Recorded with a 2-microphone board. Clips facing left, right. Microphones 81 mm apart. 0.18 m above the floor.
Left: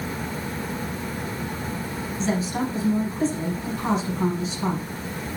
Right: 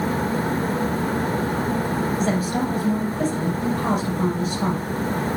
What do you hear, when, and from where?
2.2 s a woman speaking: 60° right (ahead or behind), 4.5 m